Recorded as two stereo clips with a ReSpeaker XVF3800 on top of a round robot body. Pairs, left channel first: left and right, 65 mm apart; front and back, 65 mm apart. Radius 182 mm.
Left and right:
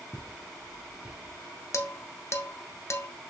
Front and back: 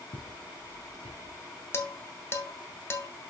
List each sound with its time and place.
0.1 s footsteps: 5° left, 1.9 m; by 1.4 s 15° right, 1.6 m
1.7 s dishes clattering: 45° left, 0.8 m